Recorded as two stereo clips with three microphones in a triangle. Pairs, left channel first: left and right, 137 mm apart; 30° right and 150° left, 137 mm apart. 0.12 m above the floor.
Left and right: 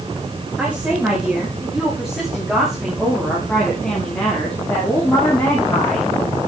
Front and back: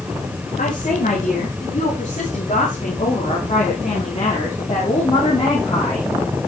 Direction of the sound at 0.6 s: 10° right.